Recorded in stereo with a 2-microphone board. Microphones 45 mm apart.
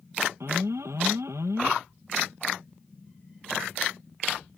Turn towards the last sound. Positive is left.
turn(degrees=-85)